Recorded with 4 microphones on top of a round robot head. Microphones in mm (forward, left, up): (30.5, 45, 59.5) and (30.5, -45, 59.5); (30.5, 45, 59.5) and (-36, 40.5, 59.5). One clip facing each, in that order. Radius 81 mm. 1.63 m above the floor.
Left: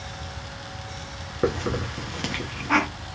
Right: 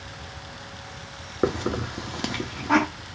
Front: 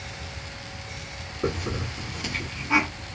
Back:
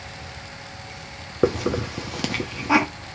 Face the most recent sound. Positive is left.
turn(degrees=-165)